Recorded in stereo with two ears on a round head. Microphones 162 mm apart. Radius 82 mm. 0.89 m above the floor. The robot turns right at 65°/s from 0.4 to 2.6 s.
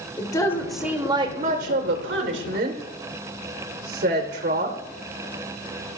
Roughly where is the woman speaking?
Behind.